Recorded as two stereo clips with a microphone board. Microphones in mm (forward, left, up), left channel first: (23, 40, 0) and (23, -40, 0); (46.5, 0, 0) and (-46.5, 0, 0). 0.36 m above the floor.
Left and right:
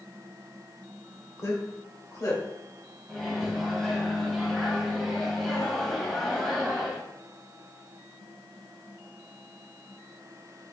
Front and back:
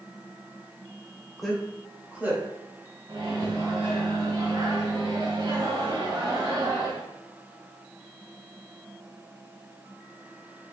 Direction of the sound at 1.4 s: 85° left.